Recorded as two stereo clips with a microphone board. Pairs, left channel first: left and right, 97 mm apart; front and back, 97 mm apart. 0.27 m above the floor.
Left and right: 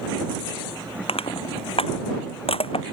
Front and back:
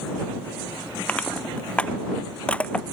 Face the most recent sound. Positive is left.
turn(degrees=80)